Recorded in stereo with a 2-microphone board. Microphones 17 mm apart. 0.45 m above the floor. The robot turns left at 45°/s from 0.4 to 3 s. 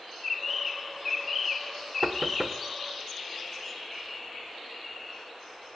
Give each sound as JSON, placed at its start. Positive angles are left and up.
{"t": 2.0, "sound": "knocking", "side_deg": -10, "distance_m": 0.8}